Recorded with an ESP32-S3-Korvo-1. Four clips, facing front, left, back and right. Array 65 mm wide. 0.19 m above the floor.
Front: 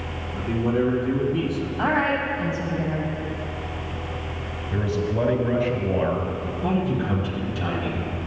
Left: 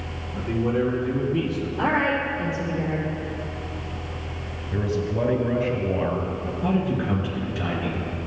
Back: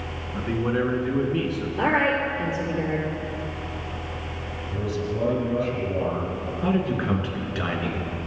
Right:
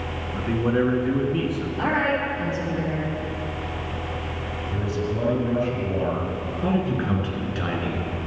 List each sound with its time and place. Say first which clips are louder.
0.3 s a man speaking: right 1 dB, front 1 dB; 130° right, 2.0 m
1.8 s a woman speaking: left 1 dB, back 1 dB; straight behind, 3.5 m
4.7 s a man speaking: left 3 dB, front 4 dB; 20° left, 2.0 m
6.6 s a man speaking: even, even; 150° right, 2.5 m